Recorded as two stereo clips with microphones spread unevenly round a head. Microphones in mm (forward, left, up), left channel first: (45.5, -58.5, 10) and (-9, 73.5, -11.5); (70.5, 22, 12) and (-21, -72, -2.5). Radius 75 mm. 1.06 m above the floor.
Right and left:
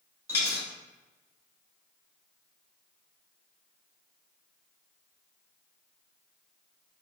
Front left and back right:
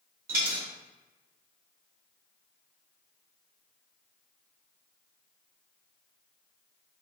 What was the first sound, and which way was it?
A dropped coin, 135° right.